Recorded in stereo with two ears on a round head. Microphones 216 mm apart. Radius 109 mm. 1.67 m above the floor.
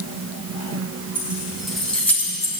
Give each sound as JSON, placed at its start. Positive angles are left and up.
{"t": 1.1, "sound": "keys jangling", "side_deg": -10, "distance_m": 2.5}